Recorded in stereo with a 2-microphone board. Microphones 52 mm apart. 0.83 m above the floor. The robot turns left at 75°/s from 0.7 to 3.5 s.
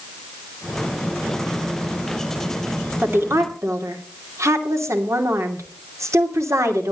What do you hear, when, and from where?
3.0 s a woman speaking: 45° right, 2.5 m; by 6.9 s 80° right, 2.5 m